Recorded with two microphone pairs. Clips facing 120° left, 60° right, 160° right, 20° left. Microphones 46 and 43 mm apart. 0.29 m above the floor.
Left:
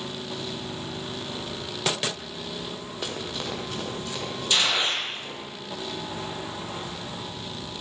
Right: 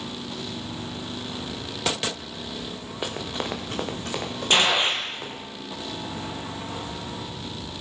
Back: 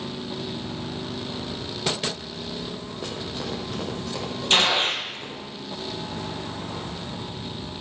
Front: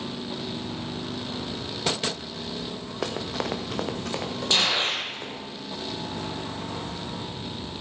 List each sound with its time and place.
3.0 s running footsteps: 10° left, 1.8 m; by 5.4 s 25° right, 4 m
4.5 s a gunshot: 110° right, 2.0 m